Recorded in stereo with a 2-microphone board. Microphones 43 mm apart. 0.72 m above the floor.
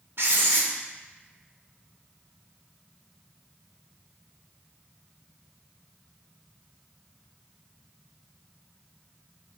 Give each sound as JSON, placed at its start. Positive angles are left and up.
{"t": 0.2, "sound": "writing", "side_deg": -65, "distance_m": 0.6}